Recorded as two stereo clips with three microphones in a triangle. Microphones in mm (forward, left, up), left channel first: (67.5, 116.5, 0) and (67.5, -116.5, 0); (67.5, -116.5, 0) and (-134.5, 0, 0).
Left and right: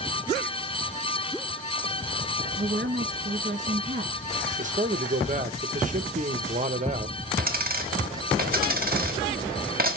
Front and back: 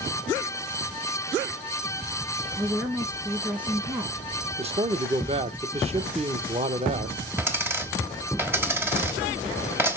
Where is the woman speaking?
140° right, 1.8 m.